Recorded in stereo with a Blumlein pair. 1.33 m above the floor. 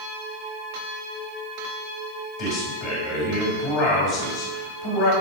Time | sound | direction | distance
2.4 | a man speaking | 35° left | 3.5 m